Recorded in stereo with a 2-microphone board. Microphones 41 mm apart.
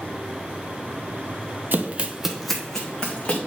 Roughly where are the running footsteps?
Right.